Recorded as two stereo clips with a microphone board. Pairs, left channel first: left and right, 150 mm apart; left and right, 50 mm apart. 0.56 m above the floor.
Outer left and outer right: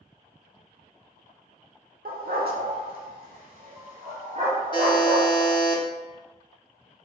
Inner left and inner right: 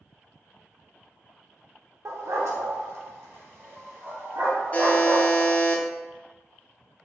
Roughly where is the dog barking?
Right.